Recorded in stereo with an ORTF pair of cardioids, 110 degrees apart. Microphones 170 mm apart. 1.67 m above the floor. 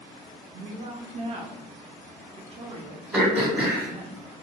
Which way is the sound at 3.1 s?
10° right.